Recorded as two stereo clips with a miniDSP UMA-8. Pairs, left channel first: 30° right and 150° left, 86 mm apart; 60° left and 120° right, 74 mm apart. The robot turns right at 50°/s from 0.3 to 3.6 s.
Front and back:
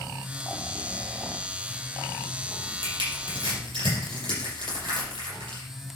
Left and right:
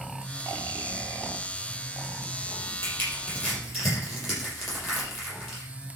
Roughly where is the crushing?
Left.